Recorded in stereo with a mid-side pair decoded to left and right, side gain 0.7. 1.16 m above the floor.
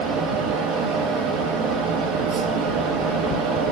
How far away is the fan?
About 1.4 m.